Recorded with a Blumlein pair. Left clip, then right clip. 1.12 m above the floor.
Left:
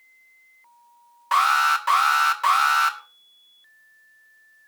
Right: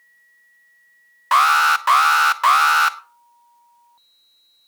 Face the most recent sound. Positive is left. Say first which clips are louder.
# right 4 dB
turn(degrees=-20)